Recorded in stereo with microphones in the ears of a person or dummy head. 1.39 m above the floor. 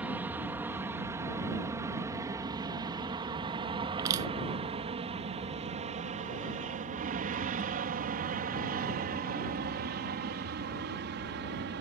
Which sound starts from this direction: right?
Crushing, at 4.0 s.